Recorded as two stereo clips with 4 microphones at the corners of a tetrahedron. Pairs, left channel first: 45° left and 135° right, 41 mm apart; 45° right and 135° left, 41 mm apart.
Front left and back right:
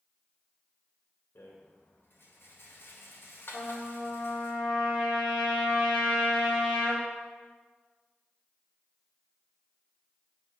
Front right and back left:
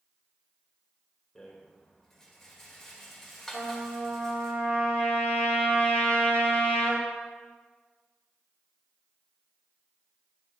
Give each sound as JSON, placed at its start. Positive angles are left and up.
{"t": 1.4, "sound": "a rattle", "azimuth_deg": 35, "distance_m": 2.0}
{"t": 3.5, "sound": "a trumpet", "azimuth_deg": 115, "distance_m": 4.0}